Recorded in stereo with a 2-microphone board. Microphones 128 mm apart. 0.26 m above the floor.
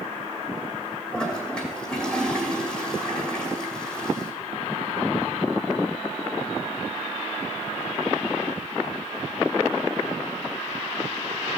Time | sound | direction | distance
1.1 | a toilet flushing | 5° left (ahead or behind) | 2 m